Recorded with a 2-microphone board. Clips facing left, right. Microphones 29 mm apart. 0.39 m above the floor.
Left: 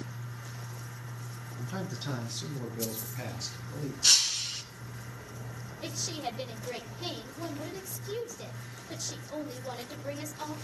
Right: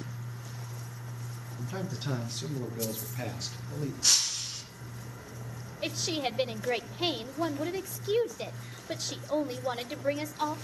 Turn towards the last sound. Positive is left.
turn(degrees=-40)  # may be behind; listen again after turning